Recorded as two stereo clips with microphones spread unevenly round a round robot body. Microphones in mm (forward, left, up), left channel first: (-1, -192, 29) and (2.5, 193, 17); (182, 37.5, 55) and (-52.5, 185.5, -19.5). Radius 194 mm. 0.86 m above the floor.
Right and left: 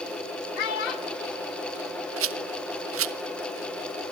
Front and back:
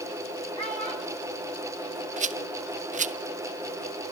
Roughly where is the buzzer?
No buzzer in this recording.